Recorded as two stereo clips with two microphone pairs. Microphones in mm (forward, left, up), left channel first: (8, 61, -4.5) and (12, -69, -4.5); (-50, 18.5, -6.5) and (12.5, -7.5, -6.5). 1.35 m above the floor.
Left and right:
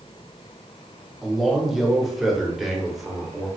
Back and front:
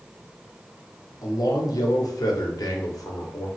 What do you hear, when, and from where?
1.2 s a man speaking: 175° right, 0.7 m